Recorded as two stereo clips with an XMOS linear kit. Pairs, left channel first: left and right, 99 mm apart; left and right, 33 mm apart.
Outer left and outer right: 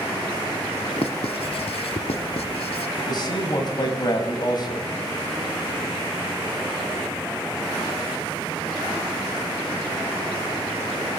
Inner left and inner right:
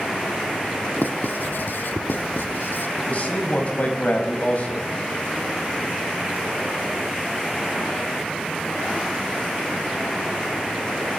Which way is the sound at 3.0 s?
45° left (ahead or behind).